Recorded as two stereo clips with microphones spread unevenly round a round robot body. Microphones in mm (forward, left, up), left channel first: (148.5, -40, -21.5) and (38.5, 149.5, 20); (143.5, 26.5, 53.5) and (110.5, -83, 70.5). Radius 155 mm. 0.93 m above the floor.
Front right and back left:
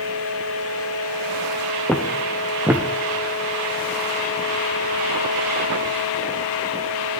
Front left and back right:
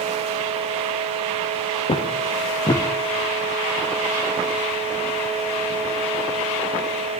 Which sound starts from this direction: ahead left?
Footsteps, at 1.9 s.